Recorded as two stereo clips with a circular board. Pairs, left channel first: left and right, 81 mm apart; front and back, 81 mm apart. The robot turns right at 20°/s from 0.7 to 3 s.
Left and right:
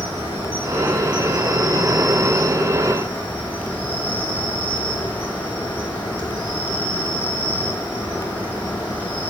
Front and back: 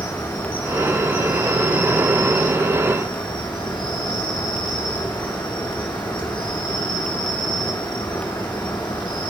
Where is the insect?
30° right, 3.5 m; by 9.3 s 20° left, 3.5 m.